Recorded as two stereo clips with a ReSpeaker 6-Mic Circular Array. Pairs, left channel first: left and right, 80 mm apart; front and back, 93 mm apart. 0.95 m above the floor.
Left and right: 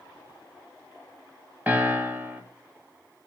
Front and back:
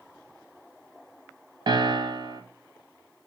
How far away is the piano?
About 1.7 m.